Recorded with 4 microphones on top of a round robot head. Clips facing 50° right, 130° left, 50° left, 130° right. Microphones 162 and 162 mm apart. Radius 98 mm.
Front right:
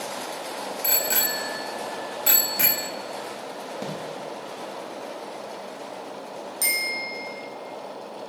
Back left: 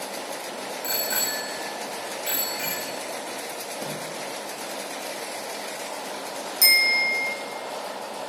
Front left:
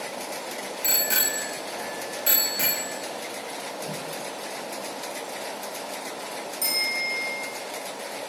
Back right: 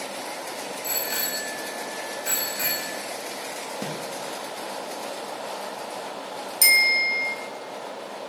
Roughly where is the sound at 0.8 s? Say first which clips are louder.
Front right 1 dB, front left 1 dB; ahead.